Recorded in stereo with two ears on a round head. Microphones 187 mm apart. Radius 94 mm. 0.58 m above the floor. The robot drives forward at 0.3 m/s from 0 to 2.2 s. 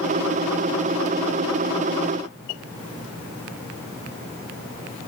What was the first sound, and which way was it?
Only background noise.